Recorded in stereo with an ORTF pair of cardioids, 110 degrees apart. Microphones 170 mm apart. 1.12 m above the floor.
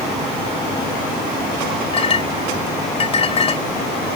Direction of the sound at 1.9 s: 35° left.